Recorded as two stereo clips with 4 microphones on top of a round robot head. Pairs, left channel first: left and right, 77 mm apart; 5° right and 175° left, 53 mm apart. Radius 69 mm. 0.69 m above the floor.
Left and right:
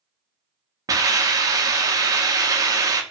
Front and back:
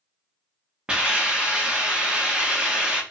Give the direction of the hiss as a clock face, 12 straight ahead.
4 o'clock.